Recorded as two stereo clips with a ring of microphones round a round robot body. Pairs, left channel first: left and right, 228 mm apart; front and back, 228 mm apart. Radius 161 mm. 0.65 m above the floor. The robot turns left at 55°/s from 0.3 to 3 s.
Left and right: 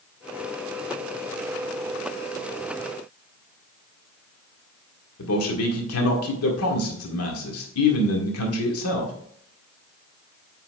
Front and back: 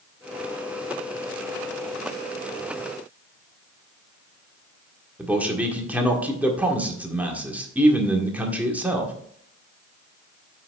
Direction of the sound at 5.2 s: 95° left.